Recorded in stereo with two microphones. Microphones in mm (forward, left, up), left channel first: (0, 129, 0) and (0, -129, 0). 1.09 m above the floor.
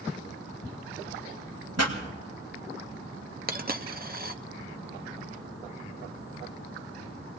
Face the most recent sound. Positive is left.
turn(degrees=-35)  # may be behind; listen again after turning